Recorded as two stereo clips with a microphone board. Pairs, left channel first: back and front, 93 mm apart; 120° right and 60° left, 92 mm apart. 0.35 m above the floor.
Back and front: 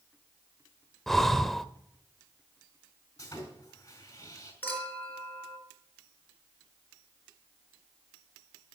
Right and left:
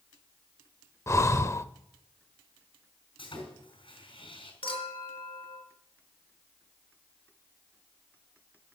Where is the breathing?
100° right, 0.5 m.